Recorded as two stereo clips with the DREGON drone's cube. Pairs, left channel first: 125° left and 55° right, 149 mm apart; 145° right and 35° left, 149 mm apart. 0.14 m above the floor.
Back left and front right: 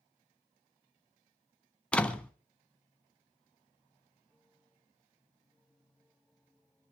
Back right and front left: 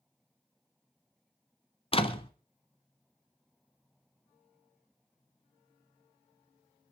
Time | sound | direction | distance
1.9 | a door slam | 160° right | 1.1 m